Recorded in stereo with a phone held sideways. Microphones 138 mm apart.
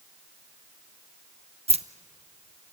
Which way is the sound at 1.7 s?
50° right (ahead or behind).